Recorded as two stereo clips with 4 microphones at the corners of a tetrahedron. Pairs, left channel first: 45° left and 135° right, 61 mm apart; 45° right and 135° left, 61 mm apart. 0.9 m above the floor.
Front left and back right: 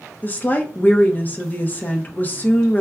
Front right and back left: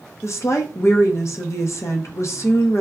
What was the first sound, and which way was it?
A woman speaking, 15° right.